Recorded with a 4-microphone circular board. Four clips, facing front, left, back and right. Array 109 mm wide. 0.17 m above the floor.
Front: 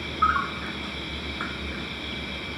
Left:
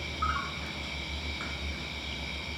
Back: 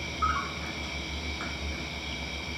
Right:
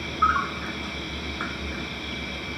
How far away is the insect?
About 1.0 m.